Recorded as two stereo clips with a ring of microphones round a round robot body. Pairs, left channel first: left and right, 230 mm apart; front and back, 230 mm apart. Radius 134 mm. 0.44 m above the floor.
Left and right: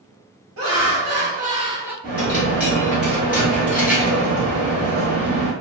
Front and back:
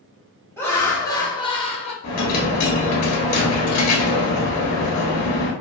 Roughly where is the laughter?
Right.